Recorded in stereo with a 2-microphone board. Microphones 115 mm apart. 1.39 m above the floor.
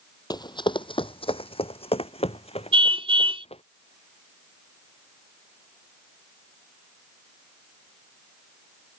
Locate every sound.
0.3 s running footsteps: 35° left (ahead or behind); by 3.6 s 60° left (ahead or behind)
2.7 s a car horn: 55° right (ahead or behind)